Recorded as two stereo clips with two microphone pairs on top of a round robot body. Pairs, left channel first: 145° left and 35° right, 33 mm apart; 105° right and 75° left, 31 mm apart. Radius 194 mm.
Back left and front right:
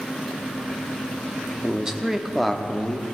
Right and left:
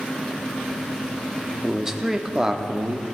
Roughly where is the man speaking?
Ahead.